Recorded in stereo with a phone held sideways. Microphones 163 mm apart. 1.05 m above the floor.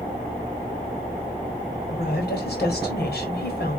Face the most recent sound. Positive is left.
turn(degrees=90)